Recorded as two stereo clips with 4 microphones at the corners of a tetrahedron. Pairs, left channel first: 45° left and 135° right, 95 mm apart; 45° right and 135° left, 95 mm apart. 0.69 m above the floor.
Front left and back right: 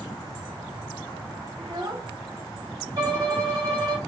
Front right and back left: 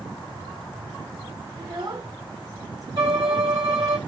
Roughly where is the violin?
Behind.